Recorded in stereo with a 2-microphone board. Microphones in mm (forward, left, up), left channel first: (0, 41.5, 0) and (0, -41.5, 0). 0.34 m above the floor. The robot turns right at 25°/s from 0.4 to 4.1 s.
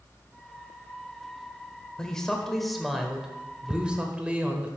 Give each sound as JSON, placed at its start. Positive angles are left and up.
{"t": 2.0, "sound": "a man speaking", "side_deg": 10, "distance_m": 1.0}
{"t": 3.7, "sound": "ticking", "side_deg": -10, "distance_m": 0.8}